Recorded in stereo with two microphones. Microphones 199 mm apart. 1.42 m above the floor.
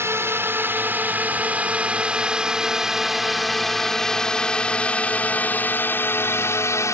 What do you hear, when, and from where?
0.0 s a drone: 15° right (ahead or behind); by 7.0 s 15° left (ahead or behind)